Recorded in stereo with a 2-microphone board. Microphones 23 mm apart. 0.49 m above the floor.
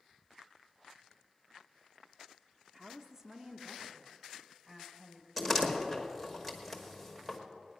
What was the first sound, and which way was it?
A woman speaking, 20° right (ahead or behind).